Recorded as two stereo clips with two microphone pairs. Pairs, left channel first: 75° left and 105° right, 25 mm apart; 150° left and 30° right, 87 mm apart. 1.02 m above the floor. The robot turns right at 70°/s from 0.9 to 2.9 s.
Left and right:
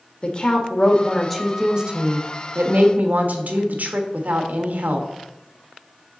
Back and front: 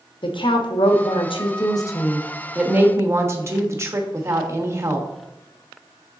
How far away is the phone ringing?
No phone ringing in this recording.